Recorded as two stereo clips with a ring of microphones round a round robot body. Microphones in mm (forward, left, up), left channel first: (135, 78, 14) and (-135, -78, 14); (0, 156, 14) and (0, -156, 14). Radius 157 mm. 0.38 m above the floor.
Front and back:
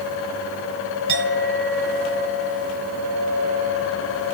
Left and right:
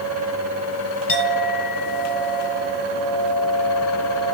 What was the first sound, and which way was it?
A clink, 155° left.